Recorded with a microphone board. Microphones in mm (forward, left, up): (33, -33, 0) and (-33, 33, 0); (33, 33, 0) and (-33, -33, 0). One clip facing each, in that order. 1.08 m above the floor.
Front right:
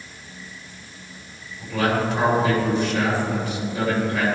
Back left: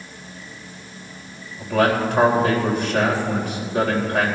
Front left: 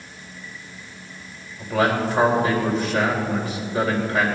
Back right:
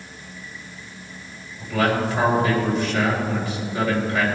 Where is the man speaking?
95° left, 4 m.